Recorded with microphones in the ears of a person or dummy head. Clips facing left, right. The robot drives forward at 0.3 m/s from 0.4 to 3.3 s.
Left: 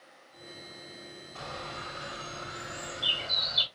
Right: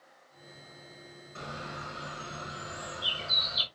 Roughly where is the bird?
Right.